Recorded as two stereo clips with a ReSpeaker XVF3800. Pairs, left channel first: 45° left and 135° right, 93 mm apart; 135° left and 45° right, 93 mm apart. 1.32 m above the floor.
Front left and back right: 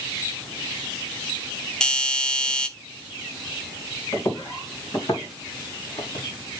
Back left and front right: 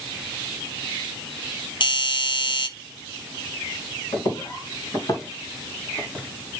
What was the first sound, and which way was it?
A doorbell, 125° left.